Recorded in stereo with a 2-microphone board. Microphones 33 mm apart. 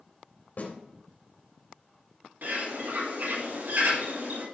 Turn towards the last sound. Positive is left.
turn(degrees=-70)  # may be behind; listen again after turning